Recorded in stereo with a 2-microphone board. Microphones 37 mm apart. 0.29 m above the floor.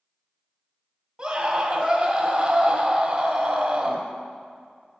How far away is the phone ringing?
I don't hear a phone ringing.